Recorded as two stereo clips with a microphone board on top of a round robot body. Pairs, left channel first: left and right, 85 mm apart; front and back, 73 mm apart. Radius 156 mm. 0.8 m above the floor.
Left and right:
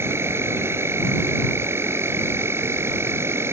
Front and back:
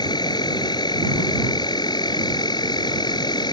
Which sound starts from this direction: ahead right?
An insect, at 0.0 s.